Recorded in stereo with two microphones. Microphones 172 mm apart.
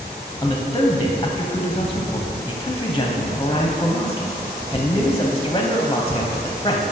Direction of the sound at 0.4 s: 25° left (ahead or behind).